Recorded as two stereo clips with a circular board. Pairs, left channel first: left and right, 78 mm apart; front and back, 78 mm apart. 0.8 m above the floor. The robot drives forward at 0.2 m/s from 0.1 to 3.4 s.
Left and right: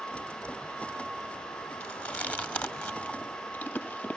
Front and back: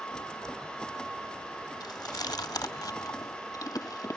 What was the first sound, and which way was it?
Chewing, 15° left.